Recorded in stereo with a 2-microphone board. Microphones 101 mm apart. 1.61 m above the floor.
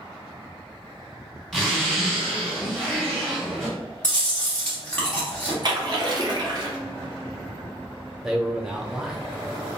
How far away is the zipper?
About 1.8 m.